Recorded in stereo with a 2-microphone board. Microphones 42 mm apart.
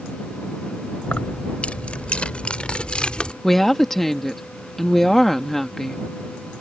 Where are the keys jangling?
30° left (ahead or behind); by 3.3 s 25° left (ahead or behind).